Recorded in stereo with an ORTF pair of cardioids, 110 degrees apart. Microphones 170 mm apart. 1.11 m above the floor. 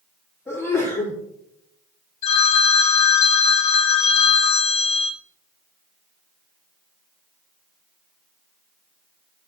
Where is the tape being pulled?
No tape being pulled in this recording.